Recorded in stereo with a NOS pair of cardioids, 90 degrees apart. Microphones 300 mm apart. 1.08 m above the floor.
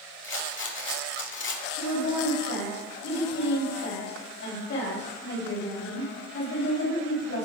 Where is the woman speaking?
55° left, 4.5 m.